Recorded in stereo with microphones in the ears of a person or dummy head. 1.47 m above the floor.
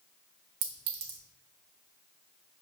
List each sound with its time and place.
0.6 s a clink: 50° right (ahead or behind), 0.9 m